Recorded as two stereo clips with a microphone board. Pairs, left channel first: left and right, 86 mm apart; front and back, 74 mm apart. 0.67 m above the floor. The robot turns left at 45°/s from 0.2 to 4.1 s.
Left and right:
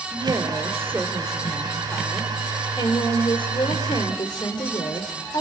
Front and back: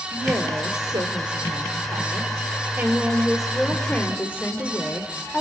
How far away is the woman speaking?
About 3 m.